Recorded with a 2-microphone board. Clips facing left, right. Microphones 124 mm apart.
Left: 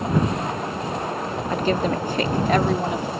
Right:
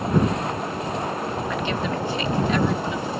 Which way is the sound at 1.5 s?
35° left (ahead or behind).